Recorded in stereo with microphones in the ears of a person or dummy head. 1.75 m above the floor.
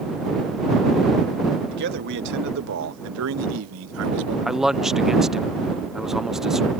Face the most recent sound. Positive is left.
turn(degrees=-5)  # may be behind; listen again after turning